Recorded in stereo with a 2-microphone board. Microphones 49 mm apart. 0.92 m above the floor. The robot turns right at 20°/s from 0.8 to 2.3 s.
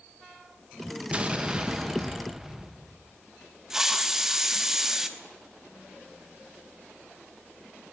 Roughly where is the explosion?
Right.